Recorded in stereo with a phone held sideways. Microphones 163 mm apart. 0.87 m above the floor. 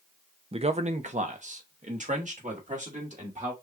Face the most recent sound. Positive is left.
turn(degrees=-50)  # may be behind; listen again after turning